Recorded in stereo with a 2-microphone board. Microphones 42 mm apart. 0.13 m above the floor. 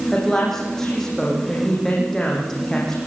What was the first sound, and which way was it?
A woman speaking, 10° left (ahead or behind).